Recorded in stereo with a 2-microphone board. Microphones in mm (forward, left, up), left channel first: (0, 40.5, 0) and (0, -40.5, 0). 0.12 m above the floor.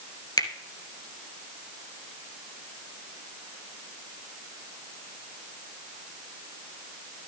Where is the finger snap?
55° left (ahead or behind), 1.5 m.